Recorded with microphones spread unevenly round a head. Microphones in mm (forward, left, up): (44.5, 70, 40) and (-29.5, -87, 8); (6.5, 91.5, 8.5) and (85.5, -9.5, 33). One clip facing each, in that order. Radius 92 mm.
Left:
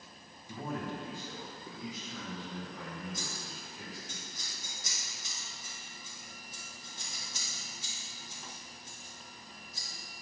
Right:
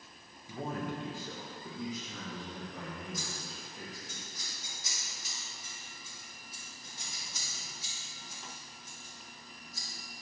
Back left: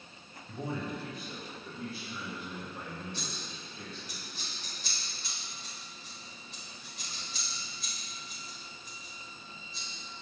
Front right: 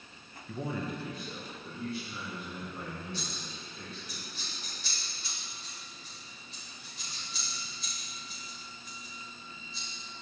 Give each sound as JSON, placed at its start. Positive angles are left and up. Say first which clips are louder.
{"t": 0.5, "sound": "a man speaking", "louder": "right 1 dB, front right 1 dB", "azimuth_deg": -35, "distance_m": 0.8}
{"t": 3.1, "sound": "scissors", "louder": "even, front right 1 dB", "azimuth_deg": 100, "distance_m": 1.3}